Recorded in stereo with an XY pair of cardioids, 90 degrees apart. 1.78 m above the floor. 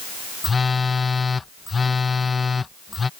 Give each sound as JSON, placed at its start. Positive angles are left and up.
{"t": 0.4, "sound": "a phone buzzing", "azimuth_deg": 35}